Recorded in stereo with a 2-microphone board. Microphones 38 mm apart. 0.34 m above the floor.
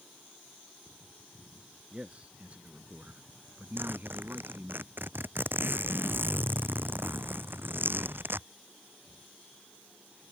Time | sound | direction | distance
1.9 | a man speaking | 30° right (ahead or behind) | ?
3.8 | a zipper | 60° right (ahead or behind) | ?